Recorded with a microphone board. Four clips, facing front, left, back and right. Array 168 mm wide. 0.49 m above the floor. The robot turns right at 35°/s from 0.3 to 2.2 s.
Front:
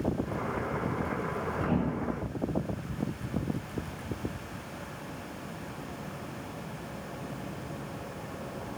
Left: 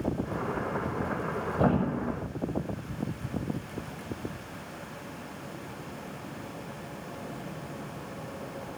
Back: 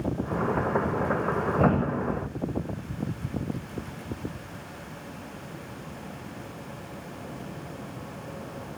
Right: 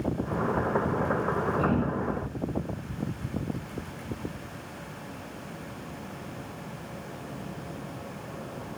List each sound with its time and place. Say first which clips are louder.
1.6 s a thud: even, back 5 dB; 150° left, 6 m; by 2.3 s 170° left, 6 m